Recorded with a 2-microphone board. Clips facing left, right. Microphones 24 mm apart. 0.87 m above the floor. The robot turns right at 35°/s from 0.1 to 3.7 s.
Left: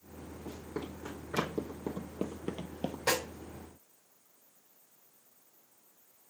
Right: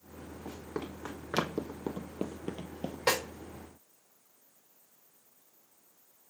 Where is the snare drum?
75° right (ahead or behind), 3.5 m.